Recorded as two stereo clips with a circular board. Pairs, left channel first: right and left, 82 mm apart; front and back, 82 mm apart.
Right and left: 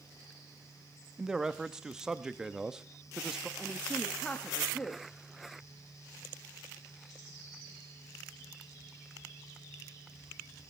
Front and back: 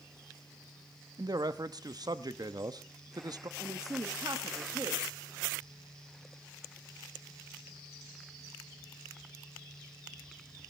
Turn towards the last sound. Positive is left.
turn(degrees=-165)